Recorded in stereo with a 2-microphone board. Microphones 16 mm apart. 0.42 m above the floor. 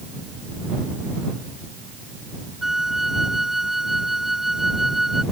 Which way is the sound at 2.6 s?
10° right (ahead or behind).